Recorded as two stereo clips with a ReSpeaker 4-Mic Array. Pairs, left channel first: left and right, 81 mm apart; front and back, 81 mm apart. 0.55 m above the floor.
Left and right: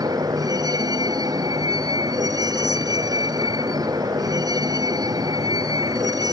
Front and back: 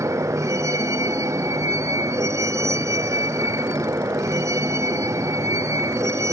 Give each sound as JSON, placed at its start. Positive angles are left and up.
{"t": 0.0, "sound": "a vehicle", "azimuth_deg": -130}